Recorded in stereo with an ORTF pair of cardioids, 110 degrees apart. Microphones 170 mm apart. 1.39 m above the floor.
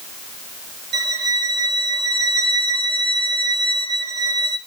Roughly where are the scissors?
No scissors in this recording.